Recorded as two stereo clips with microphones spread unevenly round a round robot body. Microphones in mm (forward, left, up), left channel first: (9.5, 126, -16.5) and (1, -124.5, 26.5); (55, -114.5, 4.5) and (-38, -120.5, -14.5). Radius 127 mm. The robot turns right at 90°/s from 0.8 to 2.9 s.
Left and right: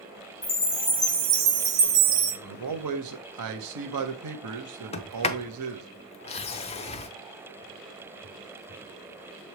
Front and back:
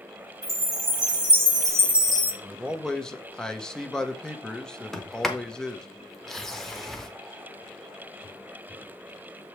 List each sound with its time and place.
0.4 s a chime: 155° left, 1.6 m; by 2.3 s 70° right, 1.6 m
2.4 s a man speaking: 130° right, 1.2 m; by 5.9 s 85° right, 1.2 m
4.9 s a sliding door: 40° left, 0.6 m